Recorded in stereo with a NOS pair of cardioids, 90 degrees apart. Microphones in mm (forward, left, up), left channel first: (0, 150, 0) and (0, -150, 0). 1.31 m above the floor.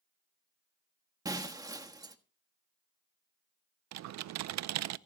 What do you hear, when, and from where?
1.2 s breaking glass: 10° right, 1.3 m
3.9 s typing on a keyboard: 65° right, 0.6 m